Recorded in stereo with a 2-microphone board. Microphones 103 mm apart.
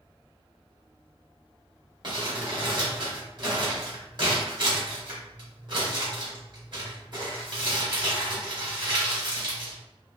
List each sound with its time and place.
2.0 s crumpling: 50° right (ahead or behind), 2 m